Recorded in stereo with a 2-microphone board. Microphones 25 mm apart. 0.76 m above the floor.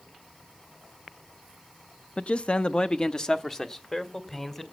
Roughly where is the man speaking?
Left.